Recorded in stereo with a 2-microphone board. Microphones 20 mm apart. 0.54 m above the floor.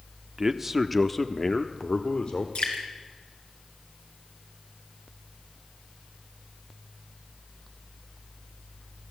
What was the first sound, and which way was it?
A man speaking, 25° right (ahead or behind).